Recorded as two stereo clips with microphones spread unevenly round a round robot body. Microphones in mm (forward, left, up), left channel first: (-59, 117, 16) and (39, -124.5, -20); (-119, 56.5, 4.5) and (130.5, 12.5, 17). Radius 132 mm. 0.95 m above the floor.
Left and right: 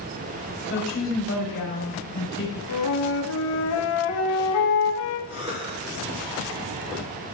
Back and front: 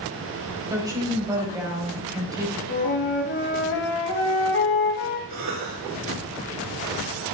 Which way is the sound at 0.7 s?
65° left.